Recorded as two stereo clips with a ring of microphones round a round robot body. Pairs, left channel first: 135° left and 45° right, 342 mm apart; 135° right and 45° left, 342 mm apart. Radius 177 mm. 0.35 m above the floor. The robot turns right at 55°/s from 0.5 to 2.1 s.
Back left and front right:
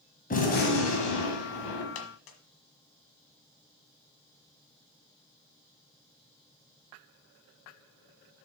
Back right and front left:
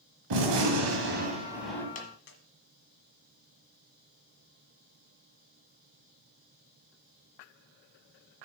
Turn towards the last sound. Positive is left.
turn(degrees=165)